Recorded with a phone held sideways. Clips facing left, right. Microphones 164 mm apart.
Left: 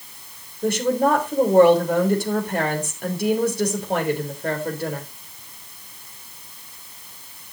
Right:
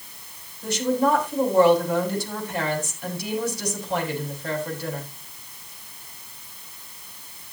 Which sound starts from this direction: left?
A woman speaking, at 0.6 s.